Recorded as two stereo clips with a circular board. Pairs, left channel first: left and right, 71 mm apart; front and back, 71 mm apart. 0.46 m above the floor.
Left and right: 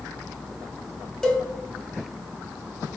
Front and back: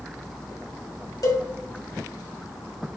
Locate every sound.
1.2 s a cowbell: 10° left, 0.8 m